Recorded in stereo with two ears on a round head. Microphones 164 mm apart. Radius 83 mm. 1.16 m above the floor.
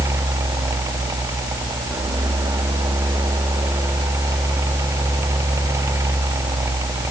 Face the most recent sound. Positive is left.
No sound to turn to.